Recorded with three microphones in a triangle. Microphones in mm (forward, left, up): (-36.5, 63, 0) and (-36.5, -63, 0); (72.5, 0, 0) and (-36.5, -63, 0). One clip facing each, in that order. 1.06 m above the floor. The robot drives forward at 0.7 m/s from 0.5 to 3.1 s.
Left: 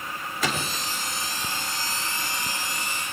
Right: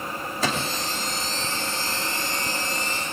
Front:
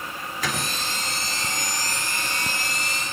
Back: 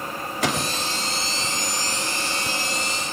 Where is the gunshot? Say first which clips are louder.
Right 2 dB, back 5 dB; 145° right, 2 m; by 0.8 s 150° right, 2.5 m.